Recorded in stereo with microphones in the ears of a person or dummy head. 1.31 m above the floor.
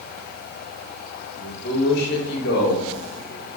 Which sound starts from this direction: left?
A man speaking, at 1.4 s.